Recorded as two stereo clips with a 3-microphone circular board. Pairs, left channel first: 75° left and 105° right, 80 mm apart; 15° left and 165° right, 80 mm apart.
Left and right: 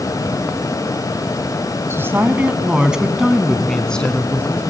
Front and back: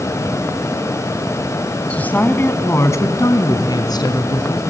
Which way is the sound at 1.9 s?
55° right.